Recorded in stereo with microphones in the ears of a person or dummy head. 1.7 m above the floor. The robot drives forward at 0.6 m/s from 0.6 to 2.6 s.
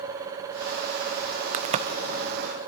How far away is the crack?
About 0.5 m.